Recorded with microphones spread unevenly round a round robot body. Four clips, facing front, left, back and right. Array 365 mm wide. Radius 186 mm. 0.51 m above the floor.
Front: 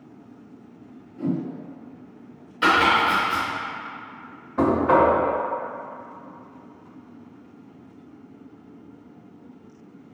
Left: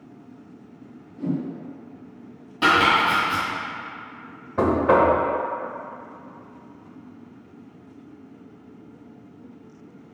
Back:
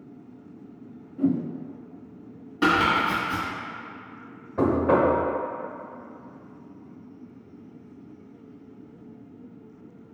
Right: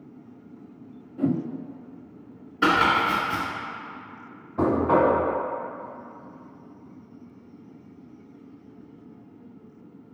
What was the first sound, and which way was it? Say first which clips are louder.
A whoosh: right 2 dB, back 3 dB; 85° right.